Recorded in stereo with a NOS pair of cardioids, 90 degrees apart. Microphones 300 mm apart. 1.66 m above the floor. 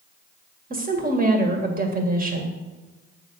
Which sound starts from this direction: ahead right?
A woman speaking, at 0.7 s.